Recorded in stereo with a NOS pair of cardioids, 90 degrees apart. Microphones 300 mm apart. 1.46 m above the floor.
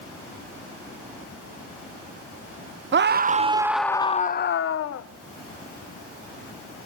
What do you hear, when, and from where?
2.9 s a scream: 40° right, 1.1 m; by 5.0 s 55° left, 1.3 m